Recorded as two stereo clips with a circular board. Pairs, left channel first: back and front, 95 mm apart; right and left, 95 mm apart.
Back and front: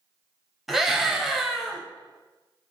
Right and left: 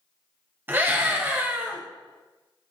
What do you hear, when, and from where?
0.7 s a scream: 80° left, 1.0 m